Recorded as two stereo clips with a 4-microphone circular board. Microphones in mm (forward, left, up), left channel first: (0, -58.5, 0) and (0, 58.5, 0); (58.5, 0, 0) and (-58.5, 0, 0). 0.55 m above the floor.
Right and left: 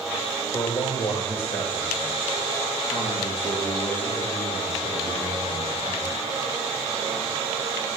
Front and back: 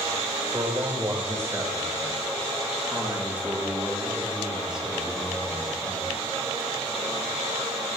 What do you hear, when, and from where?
0.5 s a man speaking: 125° right, 2.5 m; by 6.1 s 95° right, 7 m